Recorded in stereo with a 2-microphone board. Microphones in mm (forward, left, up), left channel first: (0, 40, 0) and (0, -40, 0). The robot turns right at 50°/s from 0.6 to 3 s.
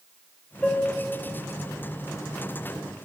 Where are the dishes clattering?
10° left (ahead or behind), 1.0 m; by 0.9 s 5° left (ahead or behind), 1.0 m.